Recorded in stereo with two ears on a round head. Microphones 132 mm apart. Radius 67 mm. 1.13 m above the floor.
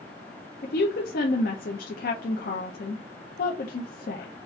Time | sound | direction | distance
0.6 | a woman speaking | 60° left (ahead or behind) | 0.7 m